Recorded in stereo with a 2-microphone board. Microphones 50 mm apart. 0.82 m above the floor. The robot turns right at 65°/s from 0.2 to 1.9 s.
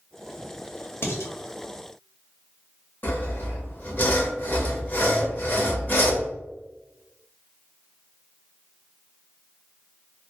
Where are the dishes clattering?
50° left (ahead or behind), 0.8 m; by 1.3 s 65° left (ahead or behind), 0.8 m.